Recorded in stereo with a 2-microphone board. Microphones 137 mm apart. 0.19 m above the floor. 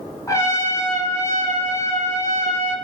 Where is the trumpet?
25° left (ahead or behind), 1.0 m.